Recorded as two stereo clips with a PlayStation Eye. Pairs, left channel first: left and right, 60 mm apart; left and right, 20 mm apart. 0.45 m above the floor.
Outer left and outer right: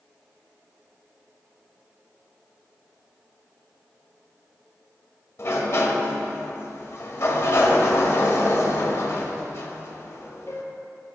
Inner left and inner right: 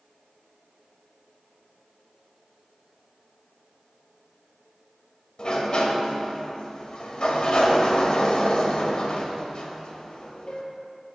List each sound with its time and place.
5.4 s a sliding door: 45° left (ahead or behind), 1.5 m